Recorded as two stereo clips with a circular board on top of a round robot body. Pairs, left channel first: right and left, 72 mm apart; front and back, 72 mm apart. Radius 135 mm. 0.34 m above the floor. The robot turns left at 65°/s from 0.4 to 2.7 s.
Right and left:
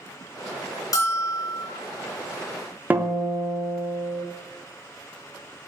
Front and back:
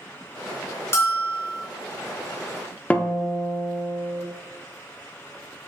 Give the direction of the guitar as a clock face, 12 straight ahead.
10 o'clock.